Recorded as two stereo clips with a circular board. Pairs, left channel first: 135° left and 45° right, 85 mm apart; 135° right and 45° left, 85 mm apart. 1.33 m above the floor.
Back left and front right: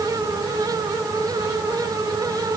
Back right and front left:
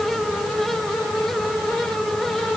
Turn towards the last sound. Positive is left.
No sound to turn to.